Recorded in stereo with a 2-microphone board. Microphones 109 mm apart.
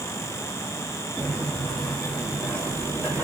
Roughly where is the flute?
No flute in this recording.